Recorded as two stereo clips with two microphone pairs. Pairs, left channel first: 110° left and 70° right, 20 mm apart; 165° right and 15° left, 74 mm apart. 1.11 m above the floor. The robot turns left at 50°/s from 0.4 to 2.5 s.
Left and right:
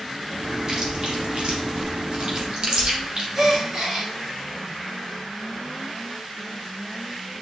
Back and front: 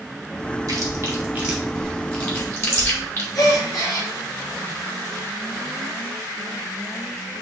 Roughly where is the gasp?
Behind right.